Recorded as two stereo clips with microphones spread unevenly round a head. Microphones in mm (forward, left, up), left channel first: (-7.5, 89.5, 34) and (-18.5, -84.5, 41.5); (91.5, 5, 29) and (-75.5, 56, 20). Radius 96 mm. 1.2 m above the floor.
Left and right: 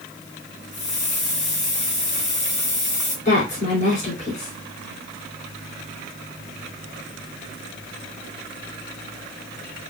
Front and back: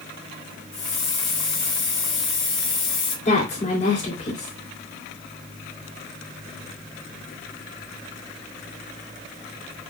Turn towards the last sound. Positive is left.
turn(degrees=35)